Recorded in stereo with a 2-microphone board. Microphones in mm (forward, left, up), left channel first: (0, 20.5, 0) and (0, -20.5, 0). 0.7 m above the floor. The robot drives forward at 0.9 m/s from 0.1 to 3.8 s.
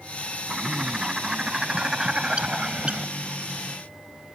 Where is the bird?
20° right (ahead or behind); by 3.1 s 30° right (ahead or behind).